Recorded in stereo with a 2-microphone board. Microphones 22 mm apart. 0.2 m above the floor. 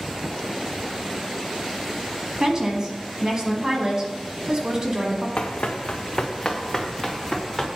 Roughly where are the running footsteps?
Left.